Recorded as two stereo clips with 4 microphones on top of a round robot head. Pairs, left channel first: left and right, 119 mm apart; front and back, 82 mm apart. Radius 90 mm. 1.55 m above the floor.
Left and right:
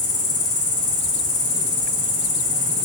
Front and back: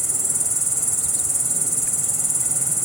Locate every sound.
0.0 s an insect: 90° left, 3.5 m